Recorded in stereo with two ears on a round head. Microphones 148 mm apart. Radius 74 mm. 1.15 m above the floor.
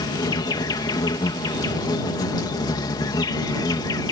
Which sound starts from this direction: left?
An insect, at 0.0 s.